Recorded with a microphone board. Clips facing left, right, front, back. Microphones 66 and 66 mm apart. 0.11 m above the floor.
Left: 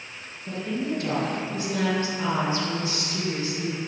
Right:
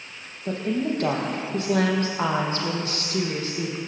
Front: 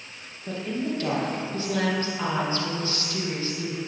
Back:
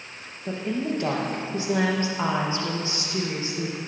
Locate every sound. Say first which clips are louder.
0.5 s a woman speaking: right 4 dB, back 2 dB; 115° right, 4 m